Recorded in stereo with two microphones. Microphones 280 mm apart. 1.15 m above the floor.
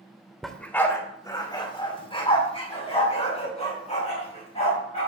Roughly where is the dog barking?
Centre.